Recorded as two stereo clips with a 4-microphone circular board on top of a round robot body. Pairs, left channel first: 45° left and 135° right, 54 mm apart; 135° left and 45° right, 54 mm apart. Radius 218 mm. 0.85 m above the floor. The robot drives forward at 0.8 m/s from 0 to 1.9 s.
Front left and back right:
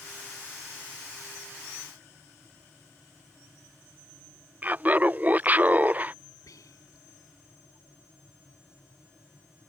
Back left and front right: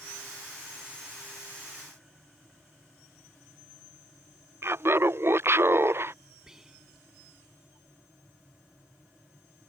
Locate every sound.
4.6 s laughter: 80° right
6.5 s whispering: 35° left